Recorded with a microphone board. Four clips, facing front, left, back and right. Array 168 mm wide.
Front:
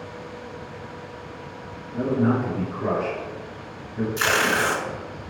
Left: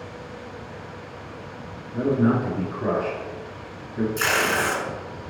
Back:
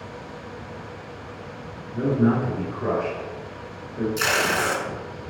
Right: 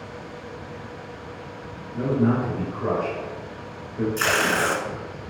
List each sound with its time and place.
1.9 s a man speaking: 100° left, 1.5 m; by 4.1 s 50° left, 2 m
4.2 s tape being pulled: 25° right, 0.7 m